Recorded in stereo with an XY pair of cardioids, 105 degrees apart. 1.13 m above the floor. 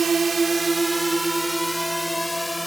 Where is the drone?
35° right; by 2.7 s 10° left.